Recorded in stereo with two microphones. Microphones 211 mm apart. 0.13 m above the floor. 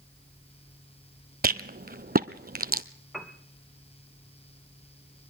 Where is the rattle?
45° right (ahead or behind), 0.7 m.